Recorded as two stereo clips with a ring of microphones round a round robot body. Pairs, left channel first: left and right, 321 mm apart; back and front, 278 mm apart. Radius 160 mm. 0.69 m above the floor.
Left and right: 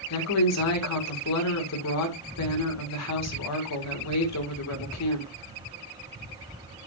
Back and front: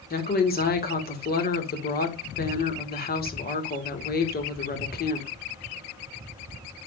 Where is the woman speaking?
125° left, 2.0 m.